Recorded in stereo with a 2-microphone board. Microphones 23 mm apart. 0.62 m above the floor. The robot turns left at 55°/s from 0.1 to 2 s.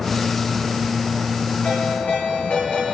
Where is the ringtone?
85° left, 8.5 m; by 2.9 s 70° left (ahead or behind), 8.5 m.